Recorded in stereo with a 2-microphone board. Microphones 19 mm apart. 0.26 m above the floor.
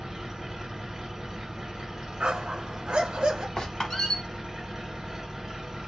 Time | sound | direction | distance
0.0 | an engine running | 25° right (ahead or behind) | 1.3 m
2.2 | a dog barking | 65° right (ahead or behind) | 0.7 m
3.6 | a squeak | 35° left (ahead or behind) | 1.0 m